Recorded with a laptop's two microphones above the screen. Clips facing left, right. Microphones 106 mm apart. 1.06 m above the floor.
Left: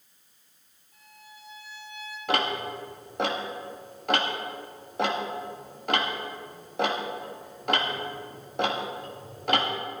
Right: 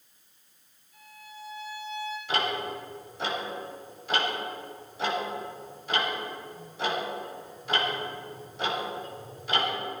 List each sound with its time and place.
0.9 s a violin: 50° left (ahead or behind), 3.5 m
2.3 s ticking: 65° left (ahead or behind), 2.0 m